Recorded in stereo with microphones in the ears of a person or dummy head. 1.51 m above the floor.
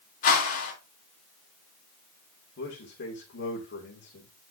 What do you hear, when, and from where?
0.2 s a whoosh: 45° left (ahead or behind), 2.5 m
2.6 s a man speaking: 55° left (ahead or behind), 2.5 m